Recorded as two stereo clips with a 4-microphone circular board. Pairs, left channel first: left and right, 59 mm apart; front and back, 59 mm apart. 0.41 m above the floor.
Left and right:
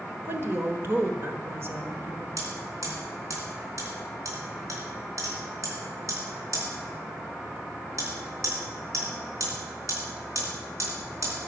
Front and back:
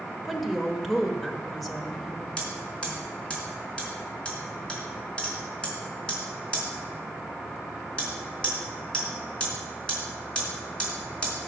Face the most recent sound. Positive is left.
turn(degrees=-75)